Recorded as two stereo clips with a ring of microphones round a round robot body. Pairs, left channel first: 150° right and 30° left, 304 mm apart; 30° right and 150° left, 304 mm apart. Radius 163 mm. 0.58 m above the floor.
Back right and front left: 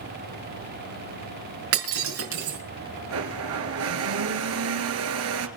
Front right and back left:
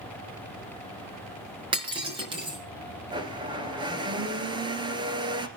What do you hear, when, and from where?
1.7 s breaking glass: 75° left, 5.5 m
3.1 s a blender: 75° left, 1.7 m